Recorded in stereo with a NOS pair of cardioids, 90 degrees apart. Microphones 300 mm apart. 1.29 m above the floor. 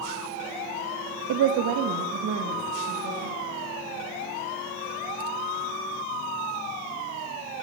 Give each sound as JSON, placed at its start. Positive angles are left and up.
{"t": 1.3, "sound": "a woman speaking", "azimuth_deg": -65, "distance_m": 0.6}